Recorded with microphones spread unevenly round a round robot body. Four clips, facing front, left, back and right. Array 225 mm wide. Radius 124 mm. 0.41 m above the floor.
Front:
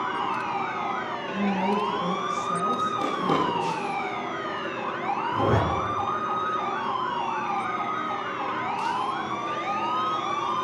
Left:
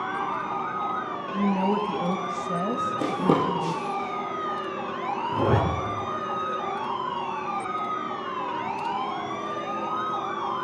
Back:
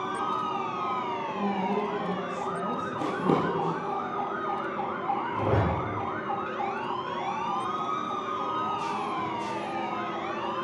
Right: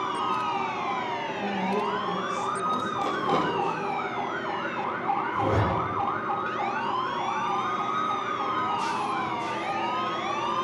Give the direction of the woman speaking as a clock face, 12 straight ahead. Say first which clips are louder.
Left 6 dB, front 5 dB; 10 o'clock.